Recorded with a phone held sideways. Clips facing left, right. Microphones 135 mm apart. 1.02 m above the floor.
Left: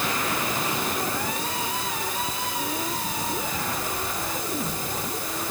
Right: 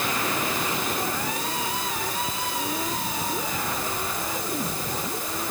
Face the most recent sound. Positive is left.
No sound to turn to.